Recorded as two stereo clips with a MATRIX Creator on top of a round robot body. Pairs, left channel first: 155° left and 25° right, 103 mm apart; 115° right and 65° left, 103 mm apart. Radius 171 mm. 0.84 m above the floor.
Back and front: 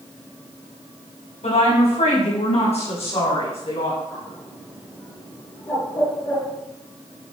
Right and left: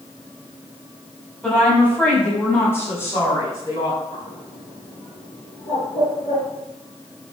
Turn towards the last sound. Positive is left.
turn(degrees=-135)